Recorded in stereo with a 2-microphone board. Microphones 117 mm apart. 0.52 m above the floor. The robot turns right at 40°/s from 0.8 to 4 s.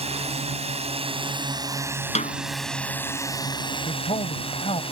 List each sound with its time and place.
0.0 s a drone: 70° right; by 4.9 s 60° left
2.1 s a snare drum: 80° left
3.9 s a man speaking: 65° left (ahead or behind); by 4.8 s 60° left (ahead or behind)